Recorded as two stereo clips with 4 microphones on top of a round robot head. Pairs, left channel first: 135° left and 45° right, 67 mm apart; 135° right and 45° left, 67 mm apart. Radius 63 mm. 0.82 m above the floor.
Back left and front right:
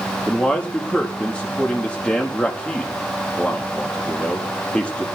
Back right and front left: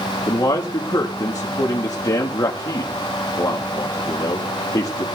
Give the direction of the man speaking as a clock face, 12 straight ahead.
5 o'clock.